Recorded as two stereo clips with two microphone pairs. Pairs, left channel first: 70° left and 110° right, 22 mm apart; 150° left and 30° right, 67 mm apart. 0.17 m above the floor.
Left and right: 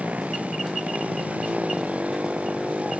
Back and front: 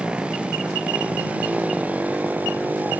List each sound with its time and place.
0.0 s a motorcycle: 105° right; by 3.0 s 95° right